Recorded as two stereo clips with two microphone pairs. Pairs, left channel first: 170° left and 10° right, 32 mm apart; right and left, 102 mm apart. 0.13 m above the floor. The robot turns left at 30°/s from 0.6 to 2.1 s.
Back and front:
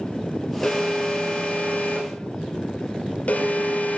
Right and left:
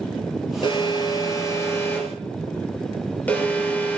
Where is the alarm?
115° right, 4 m; by 4.0 s 160° right, 4 m.